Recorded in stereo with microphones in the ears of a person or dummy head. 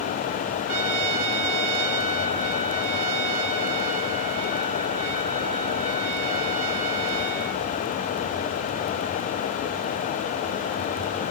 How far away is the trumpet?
About 1.5 m.